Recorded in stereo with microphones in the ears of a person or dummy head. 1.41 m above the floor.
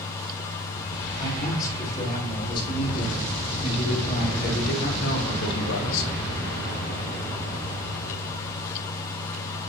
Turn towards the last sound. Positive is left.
turn(degrees=80)